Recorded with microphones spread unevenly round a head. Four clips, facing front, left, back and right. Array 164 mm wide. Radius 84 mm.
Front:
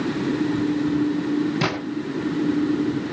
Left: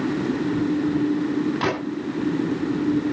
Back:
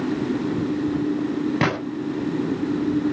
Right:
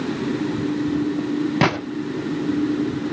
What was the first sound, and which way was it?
A gunshot, 115° right.